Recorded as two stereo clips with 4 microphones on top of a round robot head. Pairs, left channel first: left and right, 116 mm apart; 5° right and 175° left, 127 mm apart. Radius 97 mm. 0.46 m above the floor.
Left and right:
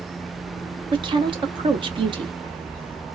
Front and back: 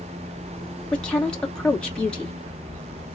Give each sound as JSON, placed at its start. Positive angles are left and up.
{"t": 0.9, "sound": "a woman speaking", "azimuth_deg": -85, "distance_m": 1.2}